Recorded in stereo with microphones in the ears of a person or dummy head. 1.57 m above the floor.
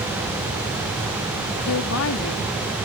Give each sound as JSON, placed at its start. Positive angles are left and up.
{"t": 1.7, "sound": "a woman speaking", "side_deg": 75}